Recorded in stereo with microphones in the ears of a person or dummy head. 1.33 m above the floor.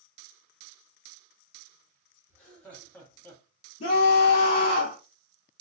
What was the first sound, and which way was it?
Laughter, 5° left (ahead or behind).